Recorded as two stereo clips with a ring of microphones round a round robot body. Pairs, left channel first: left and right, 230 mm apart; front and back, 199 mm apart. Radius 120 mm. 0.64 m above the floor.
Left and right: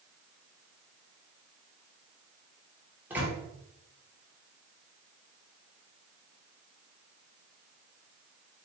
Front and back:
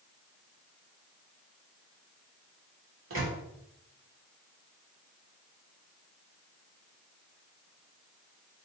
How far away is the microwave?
About 1.2 m.